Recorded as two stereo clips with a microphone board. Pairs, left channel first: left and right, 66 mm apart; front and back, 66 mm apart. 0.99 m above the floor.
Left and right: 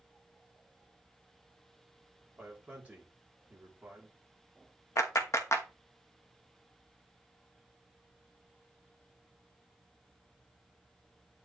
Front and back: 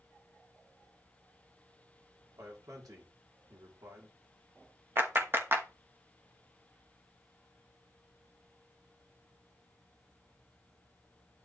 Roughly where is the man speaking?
Behind right.